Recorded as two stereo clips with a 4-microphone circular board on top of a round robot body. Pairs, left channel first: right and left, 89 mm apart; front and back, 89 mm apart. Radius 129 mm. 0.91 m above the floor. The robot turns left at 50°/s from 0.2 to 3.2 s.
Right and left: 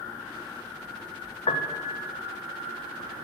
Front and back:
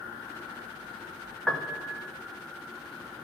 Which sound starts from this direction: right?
A piano, at 1.5 s.